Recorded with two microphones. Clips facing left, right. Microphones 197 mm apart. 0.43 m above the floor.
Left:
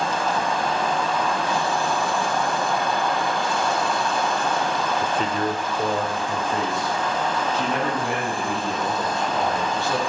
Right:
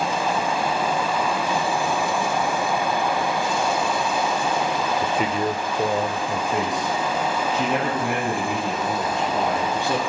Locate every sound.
5.0 s a man speaking: 5° right (ahead or behind), 0.8 m; by 10.0 s 20° right (ahead or behind), 4.5 m